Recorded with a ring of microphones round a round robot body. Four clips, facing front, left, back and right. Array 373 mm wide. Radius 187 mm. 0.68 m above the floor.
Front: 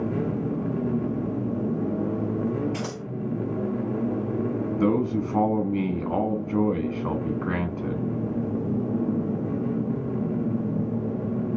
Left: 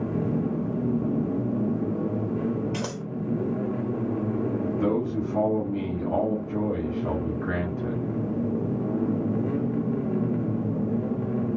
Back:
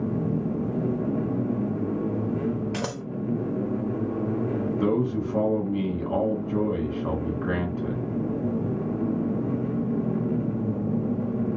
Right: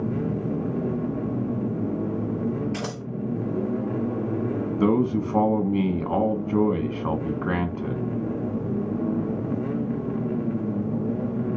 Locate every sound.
2.7 s scissors: 175° left, 1.6 m
4.8 s a man speaking: 75° right, 1.3 m